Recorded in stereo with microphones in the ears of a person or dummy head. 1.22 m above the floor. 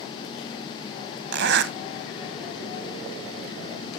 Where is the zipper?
60° right (ahead or behind), 0.9 m.